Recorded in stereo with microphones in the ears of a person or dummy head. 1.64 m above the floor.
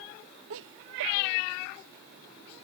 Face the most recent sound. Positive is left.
turn(degrees=-70)  # may be behind; listen again after turning